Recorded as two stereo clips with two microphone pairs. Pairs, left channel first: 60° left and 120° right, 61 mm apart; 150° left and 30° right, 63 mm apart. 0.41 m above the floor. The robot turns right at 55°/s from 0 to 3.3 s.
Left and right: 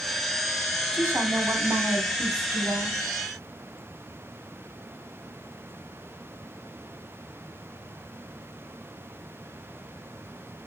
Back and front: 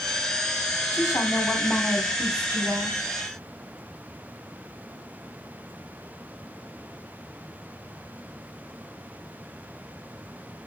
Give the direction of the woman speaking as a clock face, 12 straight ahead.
6 o'clock.